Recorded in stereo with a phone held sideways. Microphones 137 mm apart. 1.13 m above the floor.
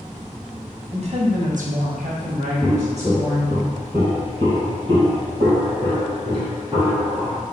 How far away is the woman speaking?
About 0.9 m.